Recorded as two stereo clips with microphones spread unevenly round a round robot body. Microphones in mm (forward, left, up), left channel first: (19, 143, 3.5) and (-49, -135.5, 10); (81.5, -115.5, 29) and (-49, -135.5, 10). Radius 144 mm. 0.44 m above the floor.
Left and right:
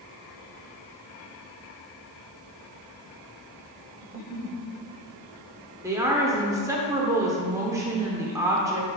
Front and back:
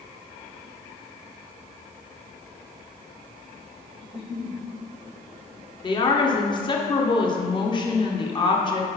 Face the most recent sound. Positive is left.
turn(degrees=-30)